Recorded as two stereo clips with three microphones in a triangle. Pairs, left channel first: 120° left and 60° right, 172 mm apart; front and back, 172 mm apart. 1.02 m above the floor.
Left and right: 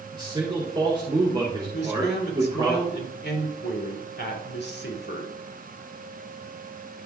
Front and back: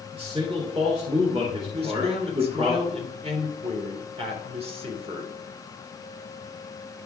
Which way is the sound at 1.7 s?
125° left.